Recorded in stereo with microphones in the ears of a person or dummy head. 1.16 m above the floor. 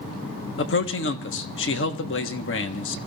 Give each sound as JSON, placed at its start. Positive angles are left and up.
{"t": 0.6, "sound": "a man speaking", "side_deg": 55, "distance_m": 1.3}